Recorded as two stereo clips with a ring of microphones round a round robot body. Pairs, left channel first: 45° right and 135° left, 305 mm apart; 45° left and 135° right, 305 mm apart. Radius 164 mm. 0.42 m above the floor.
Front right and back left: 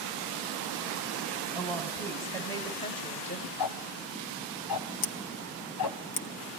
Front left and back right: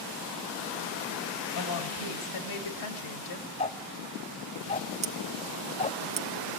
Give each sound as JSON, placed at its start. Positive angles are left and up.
{"t": 1.5, "sound": "a woman speaking", "azimuth_deg": 40, "distance_m": 3.5}
{"t": 3.6, "sound": "ticking", "azimuth_deg": -25, "distance_m": 1.1}
{"t": 5.0, "sound": "scissors", "azimuth_deg": -65, "distance_m": 1.1}